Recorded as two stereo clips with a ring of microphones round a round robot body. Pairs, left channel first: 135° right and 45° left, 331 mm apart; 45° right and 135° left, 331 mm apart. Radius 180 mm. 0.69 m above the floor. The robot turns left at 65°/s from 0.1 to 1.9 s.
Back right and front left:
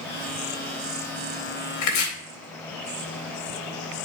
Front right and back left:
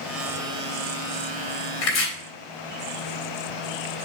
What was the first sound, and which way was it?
Chopping, 90° right.